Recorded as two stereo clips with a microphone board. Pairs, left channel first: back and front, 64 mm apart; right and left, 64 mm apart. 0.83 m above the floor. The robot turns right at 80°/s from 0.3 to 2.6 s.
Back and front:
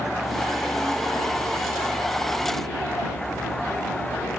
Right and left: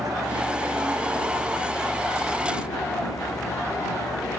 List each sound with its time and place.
0.0 s a vehicle: 85° left; by 4.4 s 105° right